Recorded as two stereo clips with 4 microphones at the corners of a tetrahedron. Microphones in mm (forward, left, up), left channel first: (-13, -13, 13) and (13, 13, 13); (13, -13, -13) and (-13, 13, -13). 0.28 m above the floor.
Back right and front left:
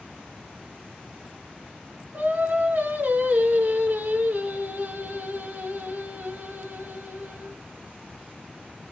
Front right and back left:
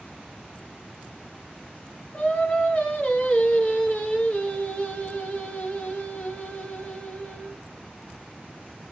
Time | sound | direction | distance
2.1 | singing | 10° left | 1.5 m